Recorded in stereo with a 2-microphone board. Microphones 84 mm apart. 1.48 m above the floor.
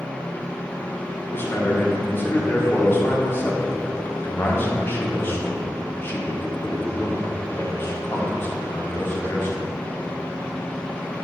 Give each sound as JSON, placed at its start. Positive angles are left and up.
{"t": 1.3, "sound": "a man speaking", "side_deg": 30, "distance_m": 1.3}